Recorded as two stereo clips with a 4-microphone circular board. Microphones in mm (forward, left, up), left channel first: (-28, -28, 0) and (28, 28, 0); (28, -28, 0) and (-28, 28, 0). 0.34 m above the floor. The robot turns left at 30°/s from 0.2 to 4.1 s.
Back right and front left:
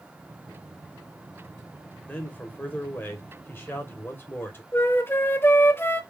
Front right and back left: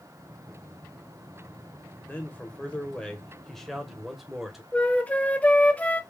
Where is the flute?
105° right, 0.6 m.